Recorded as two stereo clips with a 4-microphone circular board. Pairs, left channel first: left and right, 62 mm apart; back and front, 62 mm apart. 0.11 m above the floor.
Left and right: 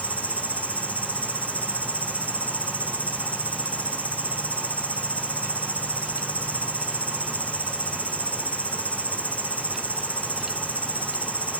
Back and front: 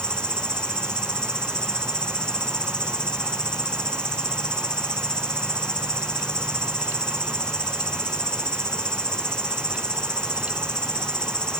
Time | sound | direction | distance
0.0 | an insect | 115° left | 1.8 m